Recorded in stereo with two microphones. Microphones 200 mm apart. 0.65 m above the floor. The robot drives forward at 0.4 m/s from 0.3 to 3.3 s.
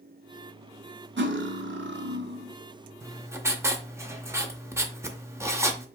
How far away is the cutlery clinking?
About 0.6 m.